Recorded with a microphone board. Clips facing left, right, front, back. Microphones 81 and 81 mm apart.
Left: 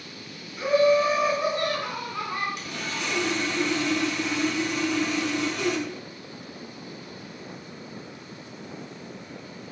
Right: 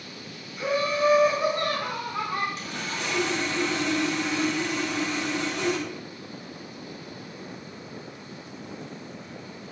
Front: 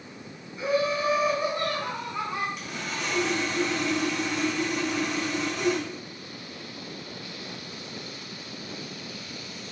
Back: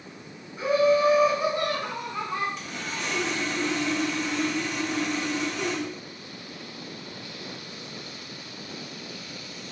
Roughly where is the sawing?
Right.